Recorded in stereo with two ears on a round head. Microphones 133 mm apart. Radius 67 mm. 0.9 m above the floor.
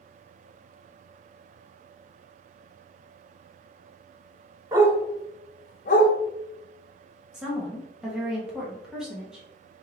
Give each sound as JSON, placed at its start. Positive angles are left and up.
{"t": 4.7, "sound": "a dog barking", "side_deg": -25, "distance_m": 1.4}
{"t": 7.3, "sound": "a woman speaking", "side_deg": -5, "distance_m": 1.3}